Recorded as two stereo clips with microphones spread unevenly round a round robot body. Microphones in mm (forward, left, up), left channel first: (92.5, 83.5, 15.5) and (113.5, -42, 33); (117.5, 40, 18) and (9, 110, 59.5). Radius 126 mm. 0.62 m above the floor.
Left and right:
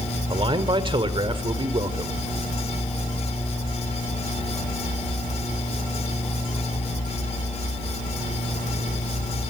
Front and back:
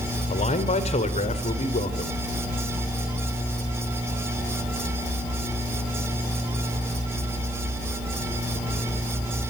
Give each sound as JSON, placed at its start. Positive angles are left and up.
{"t": 0.3, "sound": "a man speaking", "azimuth_deg": -35, "distance_m": 2.5}